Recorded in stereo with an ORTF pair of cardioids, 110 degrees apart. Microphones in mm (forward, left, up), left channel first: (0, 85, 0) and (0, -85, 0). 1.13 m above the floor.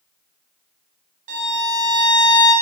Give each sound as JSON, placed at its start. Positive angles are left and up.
{"t": 1.3, "sound": "a violin", "azimuth_deg": -50, "distance_m": 1.9}